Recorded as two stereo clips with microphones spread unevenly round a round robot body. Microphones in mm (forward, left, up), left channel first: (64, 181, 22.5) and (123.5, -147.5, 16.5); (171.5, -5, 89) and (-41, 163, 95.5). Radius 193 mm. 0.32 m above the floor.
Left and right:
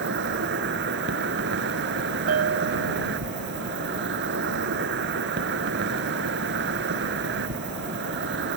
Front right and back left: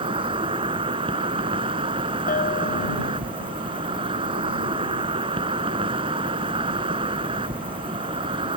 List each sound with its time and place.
0.0 s an insect: 145° right
2.3 s a bell: 80° right